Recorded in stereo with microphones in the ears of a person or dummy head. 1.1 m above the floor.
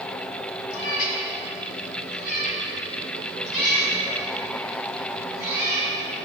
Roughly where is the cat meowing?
Left.